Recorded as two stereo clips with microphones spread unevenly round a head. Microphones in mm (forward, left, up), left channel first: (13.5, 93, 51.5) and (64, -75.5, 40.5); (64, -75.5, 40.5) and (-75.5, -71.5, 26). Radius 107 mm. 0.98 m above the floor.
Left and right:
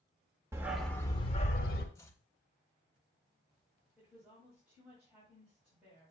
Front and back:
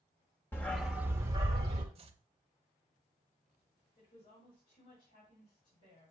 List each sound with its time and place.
0.5 s a dog barking: 15° right, 0.6 m; by 1.9 s 125° left, 0.9 m
1.9 s chopping: straight behind, 0.7 m
4.0 s a woman speaking: 10° left, 5 m